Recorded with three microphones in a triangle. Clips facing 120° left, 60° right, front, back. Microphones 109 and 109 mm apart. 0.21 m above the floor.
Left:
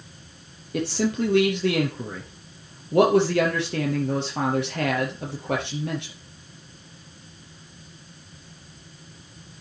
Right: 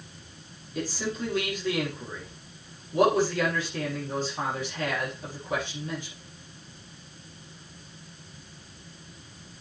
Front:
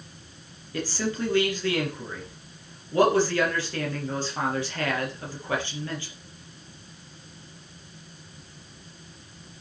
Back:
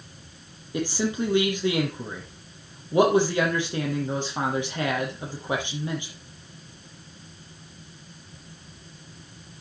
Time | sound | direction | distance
0.7 | a man speaking | 110° left | 4.5 m